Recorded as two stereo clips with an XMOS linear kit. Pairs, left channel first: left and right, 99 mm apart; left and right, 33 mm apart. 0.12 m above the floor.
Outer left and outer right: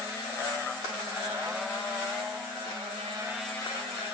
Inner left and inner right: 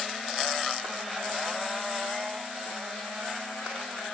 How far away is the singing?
I don't hear singing.